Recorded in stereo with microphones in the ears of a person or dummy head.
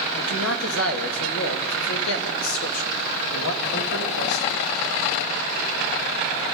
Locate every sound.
0.1 s a man speaking: 85° left, 3 m